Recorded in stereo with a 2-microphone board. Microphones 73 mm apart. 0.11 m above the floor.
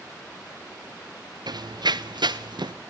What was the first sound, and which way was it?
Running footsteps, 65° right (ahead or behind).